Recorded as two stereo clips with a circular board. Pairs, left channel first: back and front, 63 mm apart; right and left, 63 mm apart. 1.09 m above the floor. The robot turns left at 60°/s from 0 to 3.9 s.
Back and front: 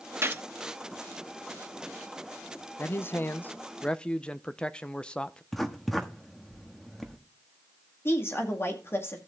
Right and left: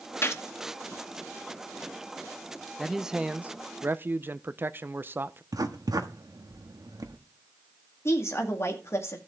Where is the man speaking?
175° right, 0.6 m; by 5.4 s 115° left, 0.6 m.